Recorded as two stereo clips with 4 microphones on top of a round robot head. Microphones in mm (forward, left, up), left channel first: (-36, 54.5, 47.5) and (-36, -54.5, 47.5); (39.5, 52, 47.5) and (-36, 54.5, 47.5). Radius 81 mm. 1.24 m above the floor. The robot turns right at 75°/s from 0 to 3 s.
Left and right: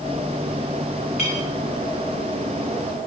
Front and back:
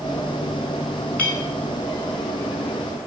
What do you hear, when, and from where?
1.2 s a clink: 70° left, 9.5 m; by 1.5 s 90° left, 9.5 m